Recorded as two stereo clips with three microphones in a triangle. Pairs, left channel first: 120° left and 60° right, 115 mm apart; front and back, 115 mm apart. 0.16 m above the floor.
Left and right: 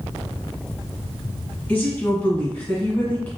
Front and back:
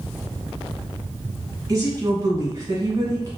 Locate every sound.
1.7 s a woman speaking: 175° left, 1.3 m